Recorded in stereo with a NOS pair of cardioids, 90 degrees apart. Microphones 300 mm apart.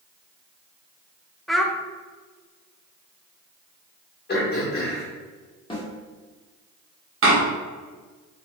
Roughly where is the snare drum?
Ahead.